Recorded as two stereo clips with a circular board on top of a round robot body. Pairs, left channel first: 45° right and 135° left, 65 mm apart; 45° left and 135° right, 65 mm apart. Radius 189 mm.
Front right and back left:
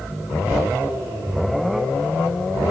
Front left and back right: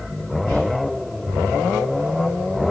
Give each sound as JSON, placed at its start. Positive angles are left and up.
{"t": 0.5, "sound": "whispering", "azimuth_deg": 70, "distance_m": 2.0}